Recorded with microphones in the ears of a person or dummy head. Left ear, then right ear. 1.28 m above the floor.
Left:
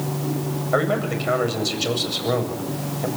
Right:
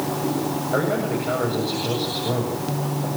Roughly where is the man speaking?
Left.